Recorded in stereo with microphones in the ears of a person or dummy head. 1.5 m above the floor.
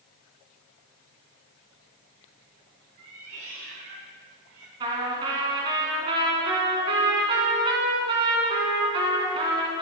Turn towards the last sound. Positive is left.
turn(degrees=-25)  # may be behind; listen again after turning